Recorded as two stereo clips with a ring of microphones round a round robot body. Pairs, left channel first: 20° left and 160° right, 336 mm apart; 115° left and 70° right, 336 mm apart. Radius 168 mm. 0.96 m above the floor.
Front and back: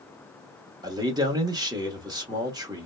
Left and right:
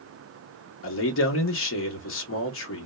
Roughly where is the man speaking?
Behind left.